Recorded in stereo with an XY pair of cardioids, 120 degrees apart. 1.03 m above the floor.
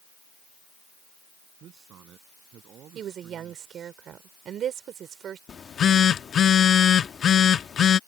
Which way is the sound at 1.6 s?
60° right.